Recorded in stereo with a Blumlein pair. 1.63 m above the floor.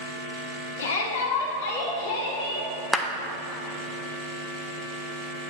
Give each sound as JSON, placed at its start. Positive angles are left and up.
{"t": 0.8, "sound": "a shout", "azimuth_deg": 65, "distance_m": 1.2}
{"t": 2.9, "sound": "a clap", "azimuth_deg": 10, "distance_m": 0.6}